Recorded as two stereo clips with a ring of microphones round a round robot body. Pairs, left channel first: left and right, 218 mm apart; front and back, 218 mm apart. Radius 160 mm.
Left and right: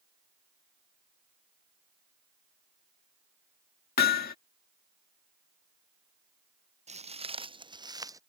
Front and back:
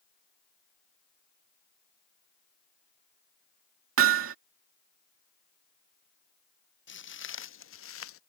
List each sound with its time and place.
4.0 s hammering: 145° left
6.9 s footsteps: 30° right; by 8.2 s 15° right